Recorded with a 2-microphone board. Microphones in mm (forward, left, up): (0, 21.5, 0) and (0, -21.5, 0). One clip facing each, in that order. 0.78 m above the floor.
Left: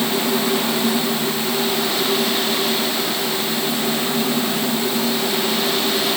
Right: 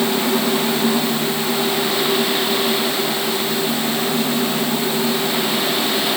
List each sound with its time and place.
Only background noise.